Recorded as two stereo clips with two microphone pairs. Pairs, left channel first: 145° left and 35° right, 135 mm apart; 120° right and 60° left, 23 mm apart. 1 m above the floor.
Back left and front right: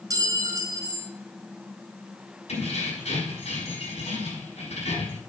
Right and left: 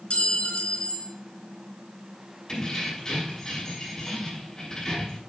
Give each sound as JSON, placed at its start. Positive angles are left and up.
{"t": 0.1, "sound": "a clink", "azimuth_deg": -100, "distance_m": 4.0}
{"t": 2.5, "sound": "keys jangling", "azimuth_deg": 180, "distance_m": 5.5}